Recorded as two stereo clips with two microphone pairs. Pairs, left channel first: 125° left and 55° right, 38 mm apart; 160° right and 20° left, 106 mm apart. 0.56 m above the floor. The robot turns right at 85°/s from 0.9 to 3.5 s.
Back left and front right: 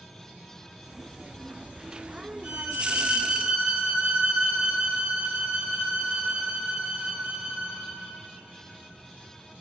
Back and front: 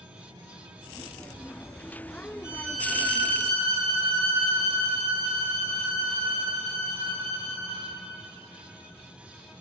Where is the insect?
45° left, 2 m; by 9.6 s 95° right, 2 m.